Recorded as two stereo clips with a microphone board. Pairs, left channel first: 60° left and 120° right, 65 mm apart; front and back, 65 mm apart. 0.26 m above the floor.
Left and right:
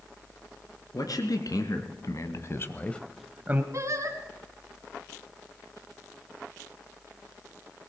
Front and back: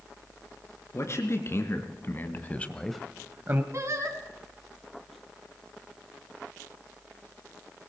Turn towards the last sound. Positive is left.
turn(degrees=-150)